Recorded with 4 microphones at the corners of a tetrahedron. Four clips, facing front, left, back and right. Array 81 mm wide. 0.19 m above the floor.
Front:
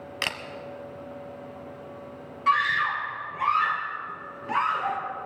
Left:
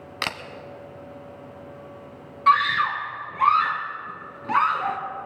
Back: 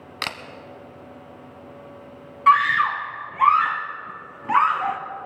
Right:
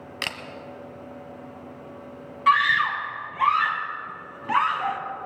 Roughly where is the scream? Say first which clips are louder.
Even, back 6 dB; behind.